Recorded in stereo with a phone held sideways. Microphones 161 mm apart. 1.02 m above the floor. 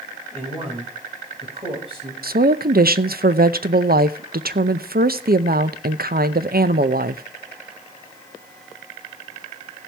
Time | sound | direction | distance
0.3 | a man speaking | 35° right (ahead or behind) | 5 m
2.2 | a woman speaking | 70° right (ahead or behind) | 0.6 m